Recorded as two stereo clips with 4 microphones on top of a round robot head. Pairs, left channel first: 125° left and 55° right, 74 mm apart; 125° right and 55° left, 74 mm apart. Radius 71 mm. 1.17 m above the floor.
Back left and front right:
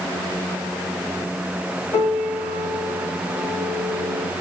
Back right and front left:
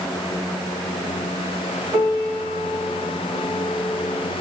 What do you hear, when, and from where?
1.9 s a piano: 80° left, 3.5 m